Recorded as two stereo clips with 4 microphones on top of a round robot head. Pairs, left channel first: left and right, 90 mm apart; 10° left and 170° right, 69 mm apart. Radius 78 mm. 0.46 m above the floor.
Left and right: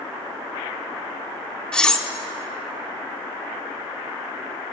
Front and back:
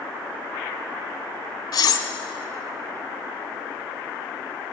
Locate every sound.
1.7 s cutlery clinking: 10° left, 0.7 m